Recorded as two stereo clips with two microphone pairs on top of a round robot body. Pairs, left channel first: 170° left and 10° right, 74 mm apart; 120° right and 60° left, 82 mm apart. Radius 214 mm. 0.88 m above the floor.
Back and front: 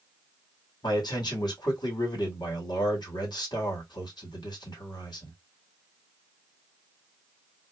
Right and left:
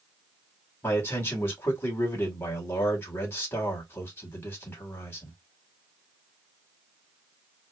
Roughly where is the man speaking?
Behind.